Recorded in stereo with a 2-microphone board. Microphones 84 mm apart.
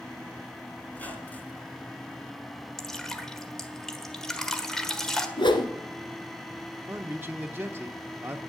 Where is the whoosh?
70° left (ahead or behind), 1.5 m.